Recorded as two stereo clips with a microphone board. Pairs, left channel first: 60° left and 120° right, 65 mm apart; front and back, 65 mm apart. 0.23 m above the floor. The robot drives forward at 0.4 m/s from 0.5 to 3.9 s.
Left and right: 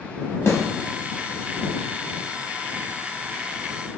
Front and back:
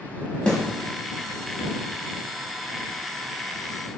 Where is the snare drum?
60° left, 0.7 m; by 0.6 s 65° left, 0.7 m.